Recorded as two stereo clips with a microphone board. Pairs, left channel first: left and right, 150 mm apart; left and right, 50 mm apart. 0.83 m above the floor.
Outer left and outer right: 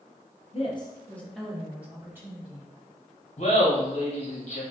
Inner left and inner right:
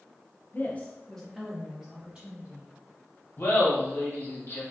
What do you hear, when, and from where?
0.5 s a woman speaking: 45° left (ahead or behind), 0.5 m; by 2.7 s 20° right (ahead or behind), 1.6 m
3.4 s laughter: 50° left (ahead or behind), 0.9 m